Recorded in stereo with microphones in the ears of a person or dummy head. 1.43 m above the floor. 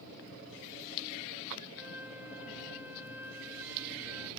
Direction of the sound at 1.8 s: 5° right (ahead or behind).